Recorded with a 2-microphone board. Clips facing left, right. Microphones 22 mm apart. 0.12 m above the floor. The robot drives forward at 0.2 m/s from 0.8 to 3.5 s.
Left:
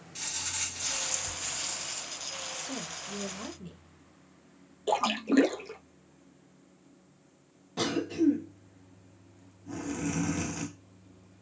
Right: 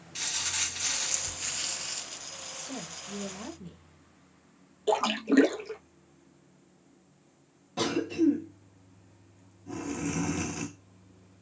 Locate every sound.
0.1 s crumpling: 25° right (ahead or behind), 0.5 m; by 2.2 s 20° right (ahead or behind), 0.7 m
2.5 s a woman speaking: 20° left (ahead or behind), 1.3 m
4.9 s a splash: 5° right (ahead or behind), 0.6 m
7.8 s a cough: centre (ahead or behind), 1.3 m